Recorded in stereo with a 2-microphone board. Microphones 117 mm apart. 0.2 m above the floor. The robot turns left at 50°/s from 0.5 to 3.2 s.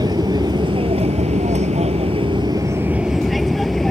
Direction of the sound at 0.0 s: 35° right (ahead or behind).